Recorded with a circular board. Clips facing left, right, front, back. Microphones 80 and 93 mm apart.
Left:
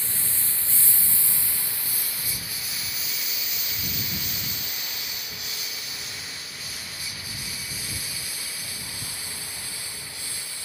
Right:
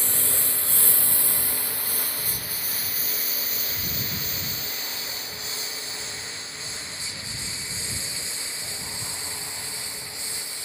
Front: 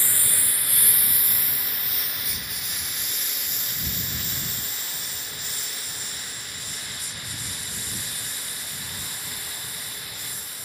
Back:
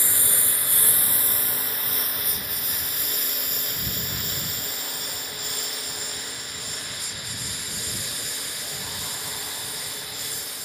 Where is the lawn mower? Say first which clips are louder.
Right 5 dB, back 2 dB; 110° right; by 10.7 s 160° right.